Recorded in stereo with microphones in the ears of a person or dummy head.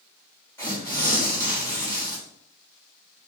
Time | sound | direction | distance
0.6 | tearing paper | 15° left (ahead or behind) | 3.5 m